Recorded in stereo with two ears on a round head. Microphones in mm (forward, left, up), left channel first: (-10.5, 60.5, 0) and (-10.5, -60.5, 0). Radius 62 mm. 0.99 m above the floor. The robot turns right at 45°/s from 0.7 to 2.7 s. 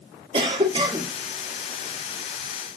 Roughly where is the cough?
Right.